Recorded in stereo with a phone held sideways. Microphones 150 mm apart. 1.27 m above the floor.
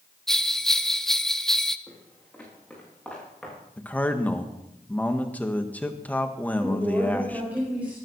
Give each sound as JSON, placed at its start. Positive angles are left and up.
{"t": 0.3, "sound": "a bell", "side_deg": 0, "distance_m": 0.7}
{"t": 1.9, "sound": "footsteps", "side_deg": 10, "distance_m": 7.5}
{"t": 3.8, "sound": "a man speaking", "side_deg": 10, "distance_m": 1.6}
{"t": 6.6, "sound": "a woman speaking", "side_deg": -10, "distance_m": 4.5}